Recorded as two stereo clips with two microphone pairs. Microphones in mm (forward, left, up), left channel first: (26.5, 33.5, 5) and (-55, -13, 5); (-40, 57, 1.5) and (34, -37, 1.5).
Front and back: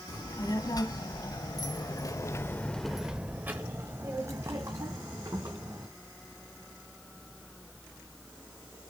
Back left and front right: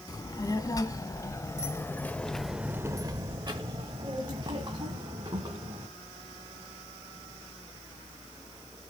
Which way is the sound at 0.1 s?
70° left.